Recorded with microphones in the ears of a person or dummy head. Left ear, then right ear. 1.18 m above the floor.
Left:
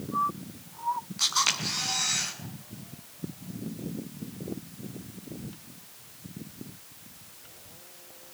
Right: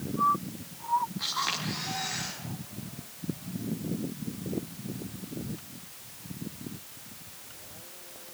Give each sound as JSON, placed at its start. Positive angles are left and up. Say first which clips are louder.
{"t": 1.2, "sound": "a camera shutter", "louder": "left 5 dB", "side_deg": 70, "distance_m": 8.5}